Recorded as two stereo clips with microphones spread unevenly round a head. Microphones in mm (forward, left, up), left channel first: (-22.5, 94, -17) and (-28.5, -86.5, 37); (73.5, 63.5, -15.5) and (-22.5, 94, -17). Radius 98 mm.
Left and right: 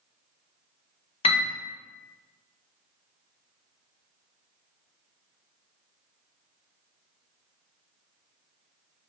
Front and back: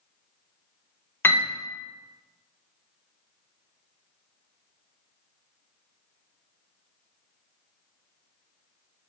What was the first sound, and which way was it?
A piano, 50° left.